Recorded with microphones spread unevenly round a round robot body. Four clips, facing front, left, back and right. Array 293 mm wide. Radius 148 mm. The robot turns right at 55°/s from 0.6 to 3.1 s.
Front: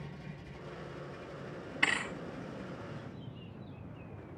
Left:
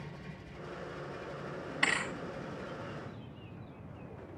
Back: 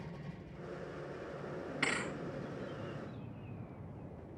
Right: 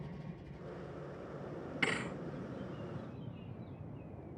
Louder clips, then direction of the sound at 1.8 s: Left 3 dB, front 3 dB; 125° right.